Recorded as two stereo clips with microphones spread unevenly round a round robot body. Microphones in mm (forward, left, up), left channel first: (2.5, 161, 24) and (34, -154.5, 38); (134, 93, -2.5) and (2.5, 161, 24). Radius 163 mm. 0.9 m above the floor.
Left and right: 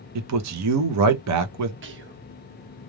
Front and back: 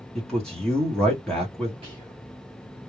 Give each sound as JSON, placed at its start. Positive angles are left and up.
{"t": 0.1, "sound": "a man speaking", "azimuth_deg": -105, "distance_m": 0.8}
{"t": 1.8, "sound": "whispering", "azimuth_deg": -135, "distance_m": 1.0}